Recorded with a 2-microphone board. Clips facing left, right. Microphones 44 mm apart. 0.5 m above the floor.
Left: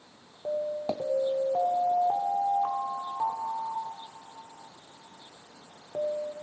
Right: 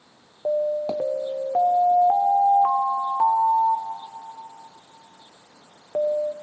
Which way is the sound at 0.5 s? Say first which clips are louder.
Right 7 dB; 40° right (ahead or behind).